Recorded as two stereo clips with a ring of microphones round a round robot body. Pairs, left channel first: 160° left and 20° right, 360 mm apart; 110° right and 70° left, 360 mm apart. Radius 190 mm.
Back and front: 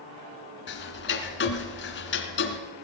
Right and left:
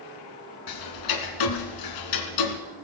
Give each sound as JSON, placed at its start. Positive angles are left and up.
{"t": 0.7, "sound": "ticking", "azimuth_deg": -145, "distance_m": 2.5}